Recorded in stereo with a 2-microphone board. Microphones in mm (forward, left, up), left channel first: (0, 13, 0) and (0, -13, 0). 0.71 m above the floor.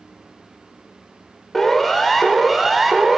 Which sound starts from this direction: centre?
A siren, at 1.5 s.